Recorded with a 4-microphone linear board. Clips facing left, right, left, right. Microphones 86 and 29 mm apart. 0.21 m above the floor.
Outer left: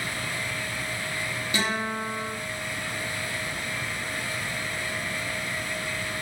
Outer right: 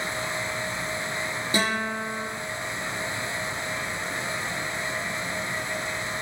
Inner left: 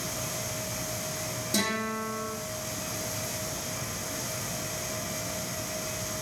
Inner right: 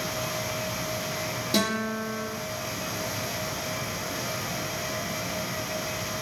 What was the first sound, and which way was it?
A guitar, 35° right (ahead or behind).